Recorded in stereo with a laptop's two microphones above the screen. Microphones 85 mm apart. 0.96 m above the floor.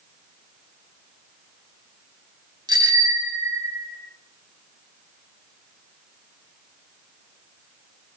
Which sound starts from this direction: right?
A bicycle bell, at 2.7 s.